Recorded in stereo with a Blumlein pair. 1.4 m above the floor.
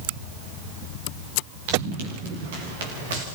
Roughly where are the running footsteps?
Ahead right.